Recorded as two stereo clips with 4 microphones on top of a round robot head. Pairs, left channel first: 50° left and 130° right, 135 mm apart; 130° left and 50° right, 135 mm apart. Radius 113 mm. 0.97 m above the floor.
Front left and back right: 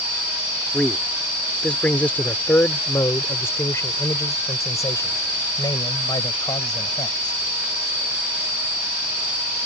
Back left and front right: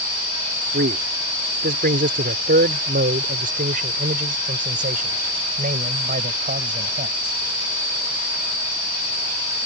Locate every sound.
0.7 s a man speaking: 40° right; by 7.4 s 15° right